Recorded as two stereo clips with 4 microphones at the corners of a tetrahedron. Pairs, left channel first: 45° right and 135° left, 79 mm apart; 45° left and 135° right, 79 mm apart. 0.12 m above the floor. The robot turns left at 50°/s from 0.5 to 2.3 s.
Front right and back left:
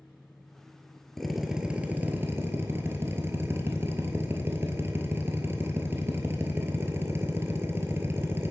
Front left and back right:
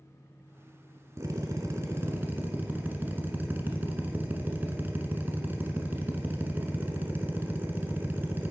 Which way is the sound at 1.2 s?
130° right.